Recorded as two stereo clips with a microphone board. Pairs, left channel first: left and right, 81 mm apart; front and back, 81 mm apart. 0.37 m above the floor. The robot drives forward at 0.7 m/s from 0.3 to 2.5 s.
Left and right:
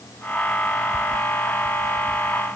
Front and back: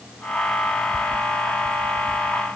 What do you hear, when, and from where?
Only background noise.